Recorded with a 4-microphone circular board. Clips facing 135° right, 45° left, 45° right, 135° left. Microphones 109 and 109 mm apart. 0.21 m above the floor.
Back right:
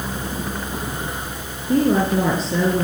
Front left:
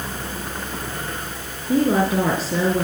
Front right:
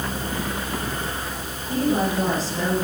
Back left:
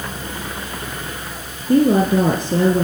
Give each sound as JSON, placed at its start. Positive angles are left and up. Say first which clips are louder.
{"t": 1.7, "sound": "a woman speaking", "louder": "back right 1 dB, back left 8 dB", "azimuth_deg": 130, "distance_m": 3.5}